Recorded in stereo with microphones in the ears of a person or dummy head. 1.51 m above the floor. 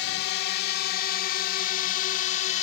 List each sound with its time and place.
0.0 s a drone: 60° left (ahead or behind); by 2.6 s 45° left (ahead or behind)